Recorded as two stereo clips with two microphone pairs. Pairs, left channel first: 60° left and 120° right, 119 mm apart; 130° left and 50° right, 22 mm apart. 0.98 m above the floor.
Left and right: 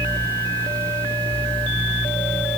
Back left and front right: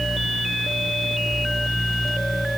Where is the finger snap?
No finger snap in this recording.